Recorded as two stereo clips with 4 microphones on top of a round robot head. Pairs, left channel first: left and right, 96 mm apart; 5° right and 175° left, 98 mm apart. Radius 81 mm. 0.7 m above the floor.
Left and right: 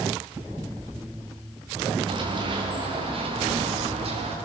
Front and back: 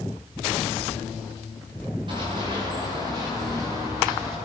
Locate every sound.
2.1 s running footsteps: 130° right, 9.5 m; by 4.3 s 115° right, 10.5 m